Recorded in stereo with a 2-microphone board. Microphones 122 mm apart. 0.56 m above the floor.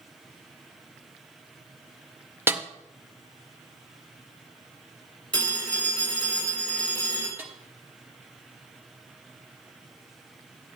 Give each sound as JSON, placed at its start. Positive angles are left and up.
{"t": 2.5, "sound": "a snare drum", "side_deg": -20, "distance_m": 0.6}
{"t": 5.3, "sound": "a phone ringing", "side_deg": 10, "distance_m": 5.5}
{"t": 7.4, "sound": "a snare drum", "side_deg": -15, "distance_m": 1.0}